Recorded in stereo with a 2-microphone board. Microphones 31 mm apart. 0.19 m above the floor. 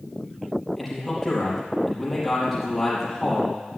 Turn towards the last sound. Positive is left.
turn(degrees=10)  # may be behind; listen again after turning